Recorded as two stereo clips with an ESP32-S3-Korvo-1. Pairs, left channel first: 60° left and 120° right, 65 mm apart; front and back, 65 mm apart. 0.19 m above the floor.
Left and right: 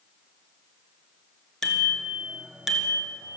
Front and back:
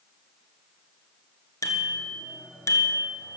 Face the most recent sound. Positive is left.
turn(degrees=-45)